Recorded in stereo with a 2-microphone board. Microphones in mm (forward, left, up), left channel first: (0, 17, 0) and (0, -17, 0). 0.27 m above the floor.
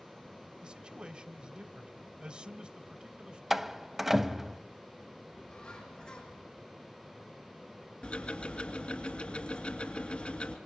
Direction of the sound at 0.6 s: 30° right (ahead or behind).